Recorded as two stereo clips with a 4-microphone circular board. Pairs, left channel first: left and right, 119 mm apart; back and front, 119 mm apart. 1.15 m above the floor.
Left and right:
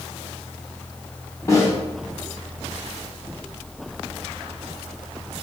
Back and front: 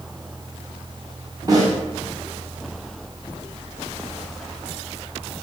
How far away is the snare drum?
About 0.7 m.